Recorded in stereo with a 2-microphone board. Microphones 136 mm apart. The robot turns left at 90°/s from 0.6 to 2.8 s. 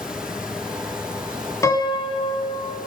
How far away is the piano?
About 1.9 m.